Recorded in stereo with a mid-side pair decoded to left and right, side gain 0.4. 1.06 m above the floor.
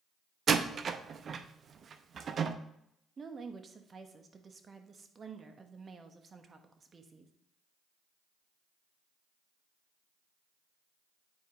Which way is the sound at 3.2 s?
40° right.